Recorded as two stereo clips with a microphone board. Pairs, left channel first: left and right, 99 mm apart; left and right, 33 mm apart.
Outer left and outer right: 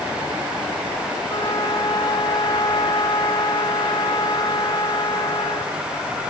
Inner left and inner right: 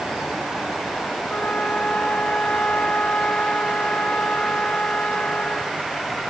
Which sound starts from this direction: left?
A flute, at 1.3 s.